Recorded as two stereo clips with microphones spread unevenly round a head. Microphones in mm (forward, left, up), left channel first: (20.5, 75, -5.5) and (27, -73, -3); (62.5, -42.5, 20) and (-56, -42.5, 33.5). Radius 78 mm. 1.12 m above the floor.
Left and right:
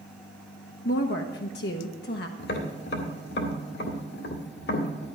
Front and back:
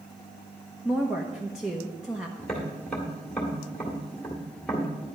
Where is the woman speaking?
90° left, 0.9 m.